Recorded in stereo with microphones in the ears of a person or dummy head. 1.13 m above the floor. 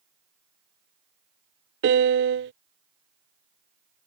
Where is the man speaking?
I don't hear a man speaking.